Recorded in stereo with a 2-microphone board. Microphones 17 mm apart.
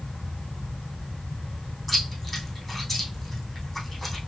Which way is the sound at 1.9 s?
Centre (ahead or behind).